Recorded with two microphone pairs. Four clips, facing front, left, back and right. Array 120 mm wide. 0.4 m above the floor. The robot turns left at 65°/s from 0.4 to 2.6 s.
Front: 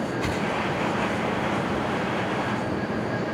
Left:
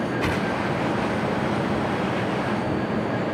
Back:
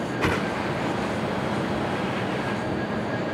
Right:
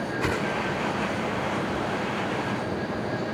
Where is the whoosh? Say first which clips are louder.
Right 1 dB, back 6 dB; 170° right; by 0.5 s 175° right.